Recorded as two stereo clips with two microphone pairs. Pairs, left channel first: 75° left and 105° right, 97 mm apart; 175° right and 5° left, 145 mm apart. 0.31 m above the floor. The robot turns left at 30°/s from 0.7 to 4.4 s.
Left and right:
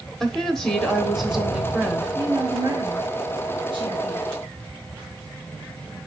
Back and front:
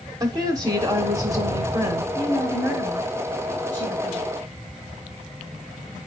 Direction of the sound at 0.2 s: 10° right.